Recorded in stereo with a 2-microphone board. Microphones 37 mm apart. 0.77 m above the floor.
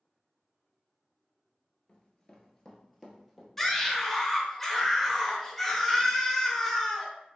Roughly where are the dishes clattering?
I don't hear dishes clattering.